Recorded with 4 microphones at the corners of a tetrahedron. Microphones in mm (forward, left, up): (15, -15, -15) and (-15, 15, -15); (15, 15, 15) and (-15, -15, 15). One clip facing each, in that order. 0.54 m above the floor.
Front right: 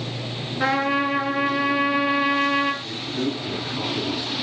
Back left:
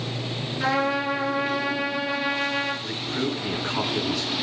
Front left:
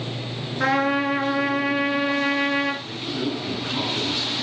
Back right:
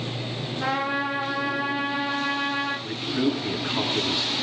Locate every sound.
0.6 s a trumpet: 20° left, 5.5 m
2.8 s a man speaking: 150° left, 5 m